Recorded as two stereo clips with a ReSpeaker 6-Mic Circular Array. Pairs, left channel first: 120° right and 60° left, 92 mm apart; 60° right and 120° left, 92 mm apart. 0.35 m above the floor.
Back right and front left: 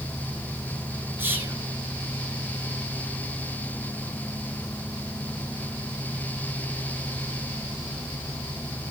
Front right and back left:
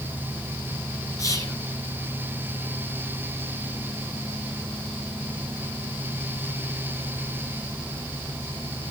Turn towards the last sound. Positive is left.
turn(degrees=-5)